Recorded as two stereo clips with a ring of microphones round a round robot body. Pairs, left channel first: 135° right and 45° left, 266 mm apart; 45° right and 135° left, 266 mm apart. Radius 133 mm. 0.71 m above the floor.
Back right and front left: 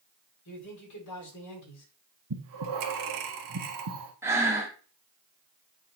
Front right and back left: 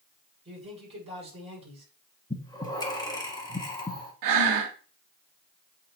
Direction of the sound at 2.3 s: 30° left.